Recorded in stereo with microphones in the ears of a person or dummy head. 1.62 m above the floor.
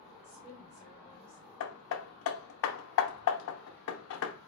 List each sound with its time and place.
0.2 s a woman speaking: 35° right (ahead or behind), 3 m
1.6 s hammering: 70° left (ahead or behind), 0.8 m